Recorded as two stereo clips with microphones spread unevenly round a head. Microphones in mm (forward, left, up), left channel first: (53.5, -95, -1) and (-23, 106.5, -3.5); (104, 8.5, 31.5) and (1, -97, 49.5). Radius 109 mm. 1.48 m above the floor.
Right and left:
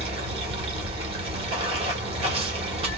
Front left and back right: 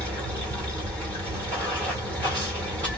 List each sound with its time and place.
0.0 s running water: 135° left, 1.1 m